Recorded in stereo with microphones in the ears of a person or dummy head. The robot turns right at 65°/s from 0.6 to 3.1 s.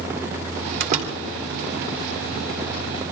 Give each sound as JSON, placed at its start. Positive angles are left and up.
{"t": 0.8, "sound": "a door slam", "side_deg": -55, "distance_m": 3.0}